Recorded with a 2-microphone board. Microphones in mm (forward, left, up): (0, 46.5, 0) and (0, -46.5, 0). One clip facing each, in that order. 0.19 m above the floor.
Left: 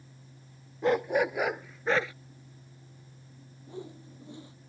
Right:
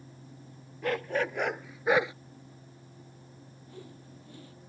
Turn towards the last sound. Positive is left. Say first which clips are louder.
# left 6 dB
turn(degrees=20)  # may be behind; listen again after turning